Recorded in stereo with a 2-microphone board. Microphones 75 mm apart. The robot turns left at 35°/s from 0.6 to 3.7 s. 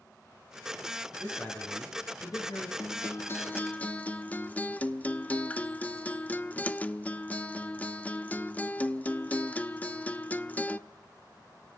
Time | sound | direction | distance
1.2 | a man speaking | 165° left | 7.5 m
2.8 | a guitar | 55° left | 0.8 m